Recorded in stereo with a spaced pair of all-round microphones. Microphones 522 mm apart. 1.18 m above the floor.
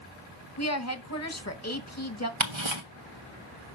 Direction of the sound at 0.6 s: 30° left (ahead or behind).